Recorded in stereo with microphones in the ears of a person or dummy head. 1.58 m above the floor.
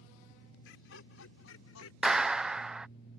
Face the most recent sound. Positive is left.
turn(degrees=-5)  # may be behind; listen again after turning